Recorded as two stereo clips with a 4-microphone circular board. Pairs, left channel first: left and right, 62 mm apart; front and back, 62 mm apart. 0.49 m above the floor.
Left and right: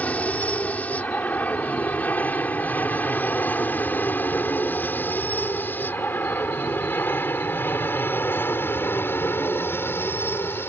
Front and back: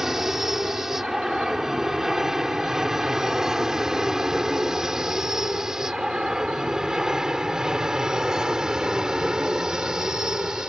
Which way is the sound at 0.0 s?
105° left.